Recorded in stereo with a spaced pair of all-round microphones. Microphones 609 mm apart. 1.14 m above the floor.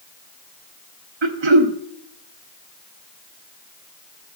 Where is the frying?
No frying in this recording.